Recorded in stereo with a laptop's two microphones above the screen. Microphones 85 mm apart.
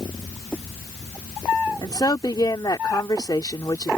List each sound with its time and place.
1.8 s a woman speaking: 50° left (ahead or behind)